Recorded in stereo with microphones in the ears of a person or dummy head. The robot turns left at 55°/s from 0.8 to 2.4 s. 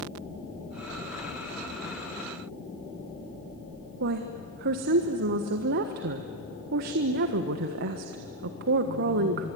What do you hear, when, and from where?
4.0 s a woman speaking: 55° right (ahead or behind), 1.3 m